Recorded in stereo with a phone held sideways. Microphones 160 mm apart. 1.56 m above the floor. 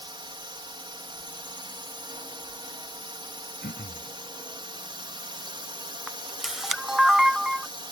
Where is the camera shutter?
Centre (ahead or behind).